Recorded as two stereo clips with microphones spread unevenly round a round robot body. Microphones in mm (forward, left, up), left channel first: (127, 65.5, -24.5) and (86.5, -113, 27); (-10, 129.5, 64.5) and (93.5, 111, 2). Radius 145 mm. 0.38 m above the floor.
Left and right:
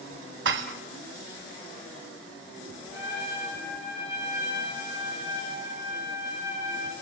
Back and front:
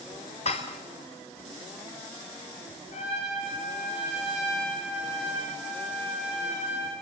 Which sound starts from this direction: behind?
A trumpet, at 2.9 s.